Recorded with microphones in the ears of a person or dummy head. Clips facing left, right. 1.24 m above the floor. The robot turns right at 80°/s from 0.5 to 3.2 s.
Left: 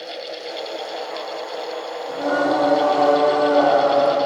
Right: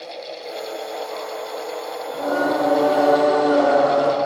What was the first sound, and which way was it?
Singing, 140° left.